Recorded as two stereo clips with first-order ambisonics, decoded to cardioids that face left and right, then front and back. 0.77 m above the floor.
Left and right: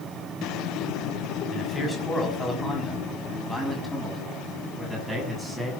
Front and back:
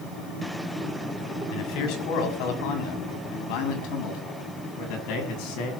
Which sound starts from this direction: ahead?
A man speaking, at 1.5 s.